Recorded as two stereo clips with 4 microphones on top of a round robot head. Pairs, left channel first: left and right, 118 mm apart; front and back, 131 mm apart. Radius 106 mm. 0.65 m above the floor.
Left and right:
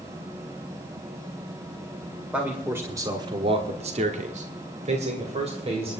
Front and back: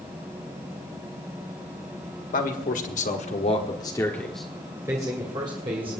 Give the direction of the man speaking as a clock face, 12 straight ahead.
12 o'clock.